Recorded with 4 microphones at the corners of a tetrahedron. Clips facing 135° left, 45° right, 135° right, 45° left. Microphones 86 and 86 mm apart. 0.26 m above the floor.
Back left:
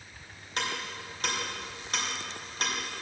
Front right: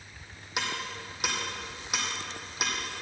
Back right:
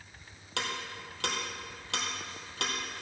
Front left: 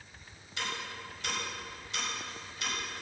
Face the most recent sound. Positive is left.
turn(degrees=-125)